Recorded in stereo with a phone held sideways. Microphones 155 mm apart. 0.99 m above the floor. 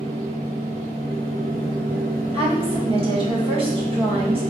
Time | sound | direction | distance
0.0 | a machine running | 70° right (ahead or behind) | 1.4 m
2.3 | a woman speaking | 35° right (ahead or behind) | 1.4 m